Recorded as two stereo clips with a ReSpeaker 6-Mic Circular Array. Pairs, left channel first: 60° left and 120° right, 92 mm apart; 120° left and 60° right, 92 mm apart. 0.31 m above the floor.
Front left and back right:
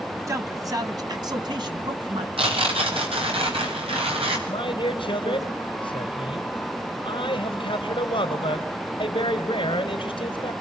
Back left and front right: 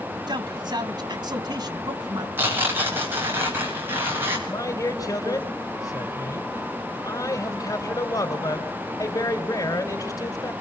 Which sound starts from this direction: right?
A man speaking, at 0.3 s.